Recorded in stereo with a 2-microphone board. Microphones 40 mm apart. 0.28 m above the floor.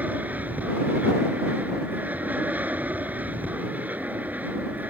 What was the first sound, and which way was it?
An aircraft, 45° right (ahead or behind).